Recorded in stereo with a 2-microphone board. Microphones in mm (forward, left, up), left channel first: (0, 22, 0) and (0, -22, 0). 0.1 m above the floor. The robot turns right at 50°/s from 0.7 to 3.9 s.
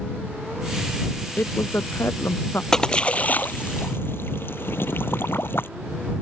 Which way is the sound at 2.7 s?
15° left (ahead or behind).